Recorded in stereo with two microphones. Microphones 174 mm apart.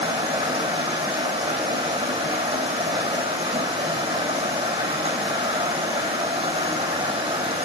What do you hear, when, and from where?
0.0 s running water: 35° right (ahead or behind), 2.5 m